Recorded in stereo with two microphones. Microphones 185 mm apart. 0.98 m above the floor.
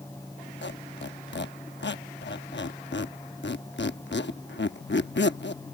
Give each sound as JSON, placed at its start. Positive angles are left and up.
{"t": 0.6, "sound": "a squeak", "side_deg": 70}